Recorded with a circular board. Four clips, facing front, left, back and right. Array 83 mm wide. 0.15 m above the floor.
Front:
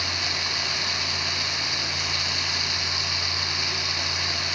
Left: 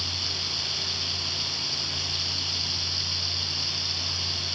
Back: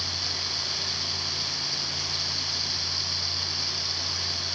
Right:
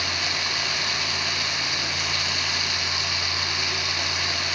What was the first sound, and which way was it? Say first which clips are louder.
Running water: right 9 dB, front 6 dB; 65° right.